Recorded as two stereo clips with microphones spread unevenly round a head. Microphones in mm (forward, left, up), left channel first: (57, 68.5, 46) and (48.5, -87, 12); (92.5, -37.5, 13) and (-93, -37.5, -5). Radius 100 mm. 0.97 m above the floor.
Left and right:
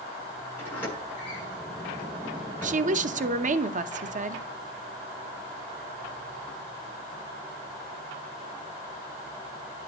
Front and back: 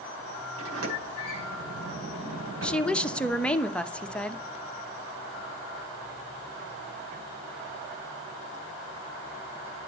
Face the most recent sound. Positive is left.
turn(degrees=-85)